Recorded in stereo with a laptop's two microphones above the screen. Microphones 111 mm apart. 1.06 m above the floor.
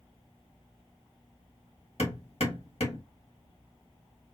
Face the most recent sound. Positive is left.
turn(degrees=65)  # may be behind; listen again after turning